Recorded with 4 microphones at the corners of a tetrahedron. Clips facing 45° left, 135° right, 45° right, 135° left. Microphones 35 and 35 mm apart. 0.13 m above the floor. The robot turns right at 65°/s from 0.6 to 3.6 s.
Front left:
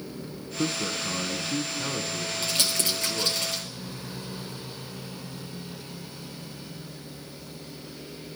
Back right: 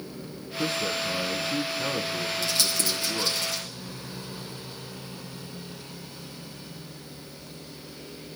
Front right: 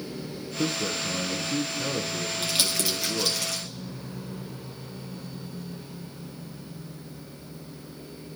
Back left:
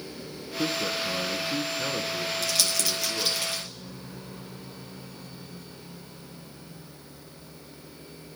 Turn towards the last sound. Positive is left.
turn(degrees=80)